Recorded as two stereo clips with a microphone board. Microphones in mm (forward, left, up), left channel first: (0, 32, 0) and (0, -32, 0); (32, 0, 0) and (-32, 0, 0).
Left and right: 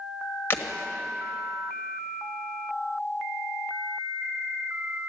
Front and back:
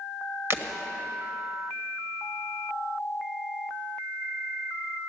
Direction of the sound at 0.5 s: 140° left.